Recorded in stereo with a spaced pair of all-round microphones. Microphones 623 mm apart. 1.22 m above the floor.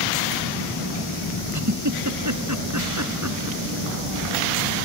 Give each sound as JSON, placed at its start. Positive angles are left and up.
{"t": 1.5, "sound": "a giggle", "side_deg": -25}